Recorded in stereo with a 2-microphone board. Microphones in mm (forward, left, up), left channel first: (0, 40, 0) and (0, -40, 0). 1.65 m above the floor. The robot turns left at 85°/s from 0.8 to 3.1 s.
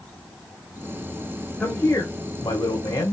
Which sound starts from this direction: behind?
A man speaking, at 1.6 s.